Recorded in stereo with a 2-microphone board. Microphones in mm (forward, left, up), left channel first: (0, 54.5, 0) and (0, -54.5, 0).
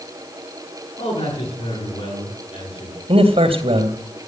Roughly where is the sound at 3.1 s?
Right.